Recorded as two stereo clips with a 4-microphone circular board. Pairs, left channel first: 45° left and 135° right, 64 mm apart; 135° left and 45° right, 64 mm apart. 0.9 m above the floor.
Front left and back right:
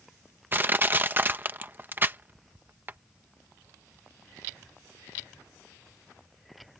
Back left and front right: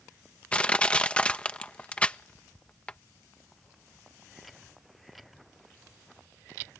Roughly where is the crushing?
Behind.